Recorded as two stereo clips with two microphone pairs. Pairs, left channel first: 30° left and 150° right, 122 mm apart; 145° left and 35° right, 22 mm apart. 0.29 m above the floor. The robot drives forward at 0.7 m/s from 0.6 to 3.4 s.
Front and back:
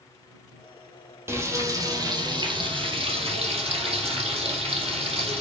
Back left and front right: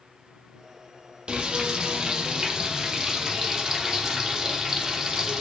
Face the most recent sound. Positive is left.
turn(degrees=-115)